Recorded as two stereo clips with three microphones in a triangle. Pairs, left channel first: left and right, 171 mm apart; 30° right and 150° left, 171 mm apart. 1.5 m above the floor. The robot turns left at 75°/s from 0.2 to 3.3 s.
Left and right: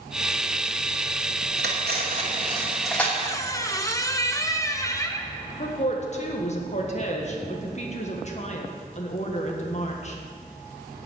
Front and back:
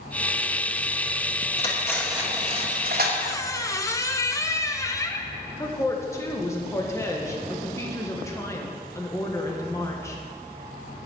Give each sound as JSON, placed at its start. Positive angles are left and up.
{"t": 1.6, "sound": "cutlery clinking", "azimuth_deg": -85, "distance_m": 2.5}
{"t": 3.2, "sound": "a squeak", "azimuth_deg": 40, "distance_m": 0.9}
{"t": 5.6, "sound": "a woman speaking", "azimuth_deg": 40, "distance_m": 1.7}